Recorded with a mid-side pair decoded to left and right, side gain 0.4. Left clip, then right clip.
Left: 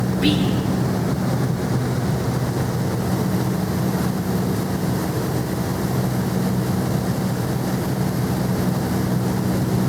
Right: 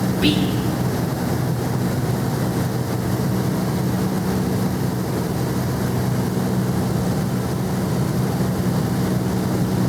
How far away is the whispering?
About 4.5 m.